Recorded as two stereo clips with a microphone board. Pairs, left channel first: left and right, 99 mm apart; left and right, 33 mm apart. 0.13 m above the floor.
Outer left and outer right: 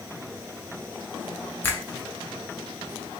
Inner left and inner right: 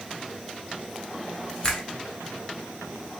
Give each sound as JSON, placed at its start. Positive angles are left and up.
{"t": 1.6, "sound": "a finger snap", "side_deg": 20, "distance_m": 1.1}